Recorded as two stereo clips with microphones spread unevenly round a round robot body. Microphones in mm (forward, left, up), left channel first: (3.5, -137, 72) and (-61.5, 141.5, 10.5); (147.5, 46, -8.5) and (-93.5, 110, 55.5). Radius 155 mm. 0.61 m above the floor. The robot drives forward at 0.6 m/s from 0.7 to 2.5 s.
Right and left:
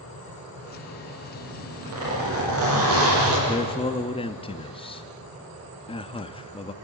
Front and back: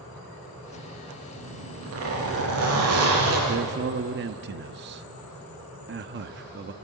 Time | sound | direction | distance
1.4 | a zipper | 140° left | 8 m
3.5 | a man speaking | 155° right | 0.7 m